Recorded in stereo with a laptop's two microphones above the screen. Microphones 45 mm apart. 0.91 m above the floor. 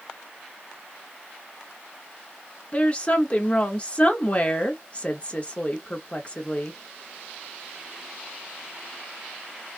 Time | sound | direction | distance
2.7 | a woman speaking | 30° left (ahead or behind) | 1.1 m